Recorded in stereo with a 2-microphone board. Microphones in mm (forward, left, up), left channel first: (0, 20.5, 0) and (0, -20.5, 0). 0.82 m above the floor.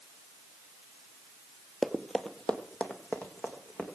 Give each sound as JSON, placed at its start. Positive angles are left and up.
{"t": 1.8, "sound": "running footsteps", "side_deg": -5, "distance_m": 0.9}